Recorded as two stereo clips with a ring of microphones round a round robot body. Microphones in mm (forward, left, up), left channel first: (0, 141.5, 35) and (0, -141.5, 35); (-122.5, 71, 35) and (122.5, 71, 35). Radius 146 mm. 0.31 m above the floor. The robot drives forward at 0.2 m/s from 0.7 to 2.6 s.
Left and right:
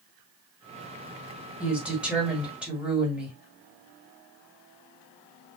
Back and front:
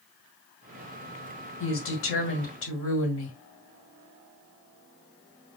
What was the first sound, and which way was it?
A woman speaking, 175° right.